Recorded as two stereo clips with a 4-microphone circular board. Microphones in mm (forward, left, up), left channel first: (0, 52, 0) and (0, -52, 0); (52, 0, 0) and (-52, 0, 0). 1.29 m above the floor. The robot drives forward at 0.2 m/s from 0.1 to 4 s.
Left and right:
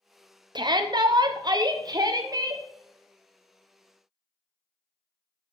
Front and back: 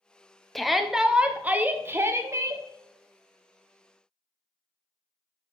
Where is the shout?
90° right, 0.6 m; by 2.6 s 135° right, 0.8 m.